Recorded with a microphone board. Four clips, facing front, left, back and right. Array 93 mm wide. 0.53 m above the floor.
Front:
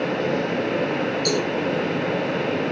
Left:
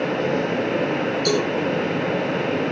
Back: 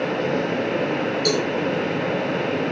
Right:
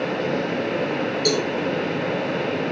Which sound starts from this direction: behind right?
A cowbell, at 1.2 s.